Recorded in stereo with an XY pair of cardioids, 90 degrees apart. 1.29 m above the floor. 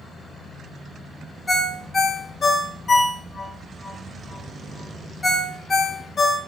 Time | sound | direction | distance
1.5 | a ringtone | 40° left | 0.8 m